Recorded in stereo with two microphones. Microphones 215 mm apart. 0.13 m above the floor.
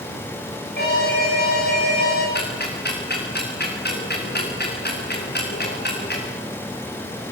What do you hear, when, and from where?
0.8 s an alarm: 50° left (ahead or behind), 9.5 m
2.4 s ticking: 50° left (ahead or behind), 8 m